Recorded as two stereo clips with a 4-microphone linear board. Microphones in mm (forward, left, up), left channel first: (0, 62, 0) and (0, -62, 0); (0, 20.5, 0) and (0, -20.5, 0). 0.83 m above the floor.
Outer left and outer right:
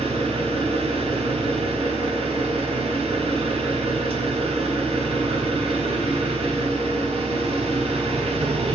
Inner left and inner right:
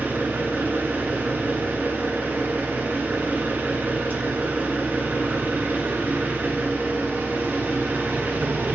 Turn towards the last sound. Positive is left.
turn(degrees=-55)  # may be behind; listen again after turning